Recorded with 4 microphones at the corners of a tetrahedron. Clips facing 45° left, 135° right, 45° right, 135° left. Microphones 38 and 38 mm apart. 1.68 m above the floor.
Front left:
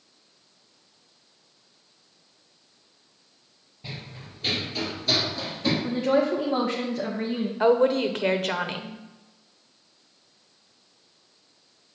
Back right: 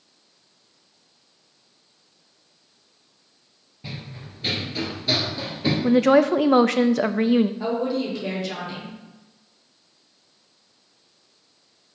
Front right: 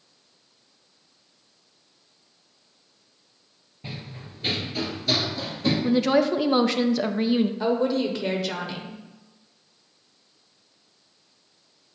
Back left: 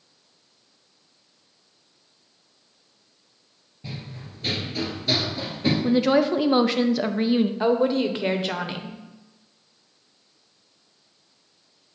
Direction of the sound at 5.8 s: 140° right.